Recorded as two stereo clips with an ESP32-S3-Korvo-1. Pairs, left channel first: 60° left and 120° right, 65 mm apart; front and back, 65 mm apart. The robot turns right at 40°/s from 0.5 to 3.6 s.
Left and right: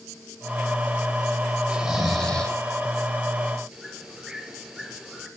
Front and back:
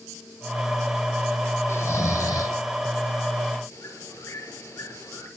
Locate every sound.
1.7 s snoring: 45° right, 2.5 m; by 2.6 s 10° right, 2.5 m
3.7 s a bird: 35° right, 6 m